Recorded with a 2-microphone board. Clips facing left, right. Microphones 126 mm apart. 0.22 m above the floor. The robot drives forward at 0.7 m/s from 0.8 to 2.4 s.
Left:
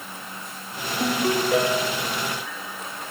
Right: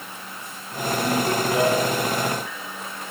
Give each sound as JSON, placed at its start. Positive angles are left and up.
{"t": 1.0, "sound": "a ringtone", "side_deg": 60, "distance_m": 8.0}